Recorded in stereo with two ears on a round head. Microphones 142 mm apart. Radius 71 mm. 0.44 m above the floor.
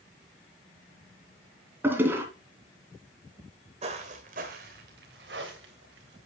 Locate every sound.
1.8 s a toilet flushing: 15° right (ahead or behind), 2.5 m
3.8 s footsteps: 40° right (ahead or behind), 1.9 m; by 6.2 s 80° right, 3.5 m